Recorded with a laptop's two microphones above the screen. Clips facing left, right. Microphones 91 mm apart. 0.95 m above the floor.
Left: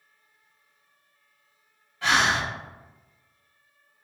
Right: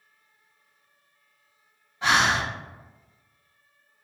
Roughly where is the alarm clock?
I don't hear an alarm clock.